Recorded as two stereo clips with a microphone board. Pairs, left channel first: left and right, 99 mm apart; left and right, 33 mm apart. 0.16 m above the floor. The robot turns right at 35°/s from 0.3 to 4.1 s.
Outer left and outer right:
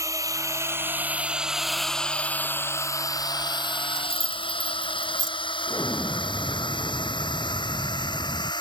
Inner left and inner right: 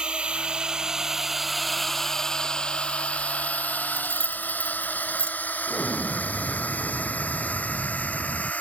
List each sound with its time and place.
0.0 s a drone: 30° right (ahead or behind); by 8.6 s 50° left (ahead or behind)
4.0 s keys jangling: 40° left (ahead or behind); by 5.3 s 35° left (ahead or behind)
5.7 s an explosion: 15° left (ahead or behind)